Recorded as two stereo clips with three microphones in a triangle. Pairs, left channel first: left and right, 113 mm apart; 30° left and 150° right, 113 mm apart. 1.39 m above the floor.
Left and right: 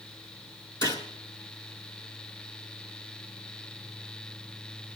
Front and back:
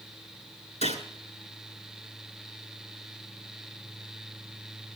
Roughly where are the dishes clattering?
I don't hear dishes clattering.